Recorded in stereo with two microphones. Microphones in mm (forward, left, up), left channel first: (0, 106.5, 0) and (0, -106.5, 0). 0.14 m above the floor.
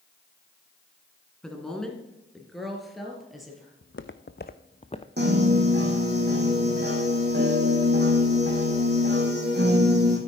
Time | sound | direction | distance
1.4 | a woman speaking | 5° left (ahead or behind) | 1.6 m
3.8 | footsteps | 75° left (ahead or behind) | 0.7 m
5.2 | a piano | 55° right (ahead or behind) | 2 m